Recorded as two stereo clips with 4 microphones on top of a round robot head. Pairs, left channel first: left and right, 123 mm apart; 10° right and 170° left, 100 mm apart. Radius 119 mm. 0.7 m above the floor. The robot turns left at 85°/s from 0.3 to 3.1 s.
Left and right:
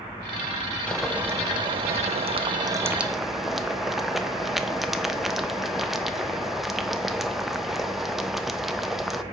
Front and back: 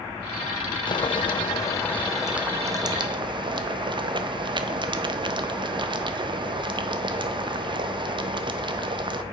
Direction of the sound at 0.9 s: 10° left.